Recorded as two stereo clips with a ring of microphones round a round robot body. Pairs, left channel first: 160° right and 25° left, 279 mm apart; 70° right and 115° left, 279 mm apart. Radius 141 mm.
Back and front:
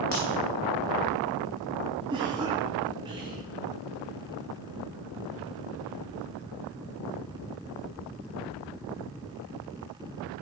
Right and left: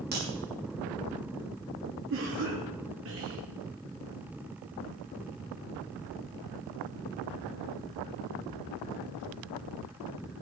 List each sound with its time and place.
0.1 s a crack: 170° left, 5 m
2.1 s a cough: 90° left, 1.5 m